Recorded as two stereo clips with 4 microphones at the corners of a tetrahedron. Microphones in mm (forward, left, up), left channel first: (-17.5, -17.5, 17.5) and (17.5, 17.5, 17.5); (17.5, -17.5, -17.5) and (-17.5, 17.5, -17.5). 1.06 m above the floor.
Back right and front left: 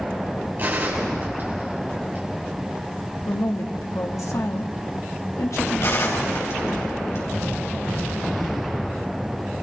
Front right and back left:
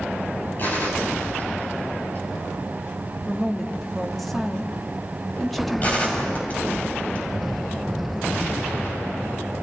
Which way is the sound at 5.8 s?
105° right.